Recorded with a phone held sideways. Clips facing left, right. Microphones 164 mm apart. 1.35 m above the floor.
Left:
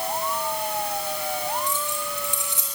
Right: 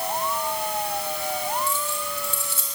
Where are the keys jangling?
15° left (ahead or behind), 7 m.